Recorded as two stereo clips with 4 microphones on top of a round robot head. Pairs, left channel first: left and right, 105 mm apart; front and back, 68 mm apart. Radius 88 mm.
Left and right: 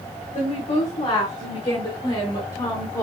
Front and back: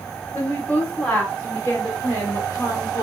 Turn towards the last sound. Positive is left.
turn(degrees=45)